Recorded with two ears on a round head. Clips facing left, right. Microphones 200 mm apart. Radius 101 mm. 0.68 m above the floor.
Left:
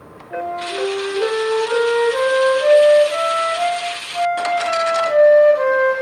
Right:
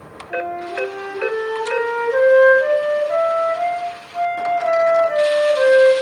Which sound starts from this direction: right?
A flute, at 0.3 s.